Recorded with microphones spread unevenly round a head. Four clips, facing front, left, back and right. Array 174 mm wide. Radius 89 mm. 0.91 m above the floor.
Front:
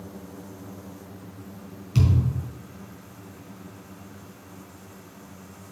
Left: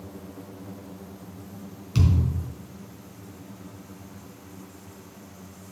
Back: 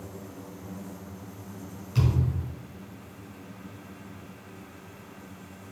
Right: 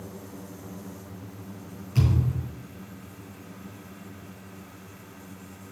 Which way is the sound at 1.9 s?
55° left.